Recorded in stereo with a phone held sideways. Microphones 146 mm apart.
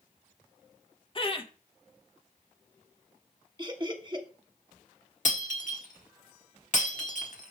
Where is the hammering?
I don't hear hammering.